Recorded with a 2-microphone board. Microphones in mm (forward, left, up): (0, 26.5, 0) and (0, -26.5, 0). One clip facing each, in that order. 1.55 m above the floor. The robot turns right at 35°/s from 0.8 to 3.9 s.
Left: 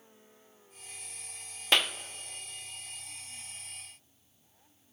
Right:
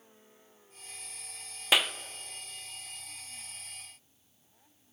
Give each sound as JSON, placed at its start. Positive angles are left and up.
{"t": 1.7, "sound": "a clap", "side_deg": -5, "distance_m": 0.5}